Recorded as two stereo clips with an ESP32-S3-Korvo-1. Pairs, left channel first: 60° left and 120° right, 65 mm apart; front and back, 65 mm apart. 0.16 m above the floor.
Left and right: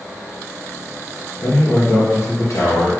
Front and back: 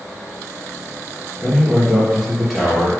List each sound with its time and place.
1.4 s a man speaking: 90° left, 3 m